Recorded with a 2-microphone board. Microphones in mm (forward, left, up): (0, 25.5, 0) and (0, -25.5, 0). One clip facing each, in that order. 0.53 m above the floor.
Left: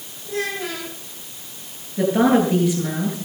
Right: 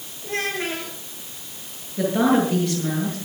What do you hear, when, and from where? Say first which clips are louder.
0.2 s a child speaking: even; 60° right (ahead or behind), 8 m
2.0 s a woman speaking: left 2 dB; 5° left (ahead or behind), 9.5 m